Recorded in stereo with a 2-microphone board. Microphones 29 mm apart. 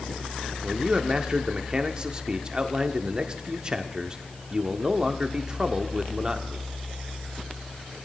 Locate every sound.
0.6 s a man speaking: 30° right (ahead or behind), 0.9 m